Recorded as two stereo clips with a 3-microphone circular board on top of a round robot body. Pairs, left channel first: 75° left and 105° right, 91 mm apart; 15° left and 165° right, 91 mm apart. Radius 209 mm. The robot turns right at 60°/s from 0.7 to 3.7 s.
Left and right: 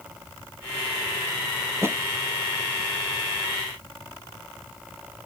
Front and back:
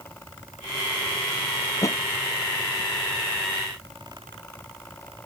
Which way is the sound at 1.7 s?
50° right.